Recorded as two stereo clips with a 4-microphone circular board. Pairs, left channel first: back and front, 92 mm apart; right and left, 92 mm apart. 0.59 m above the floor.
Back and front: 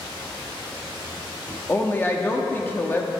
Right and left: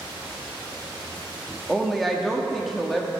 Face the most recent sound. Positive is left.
turn(degrees=-175)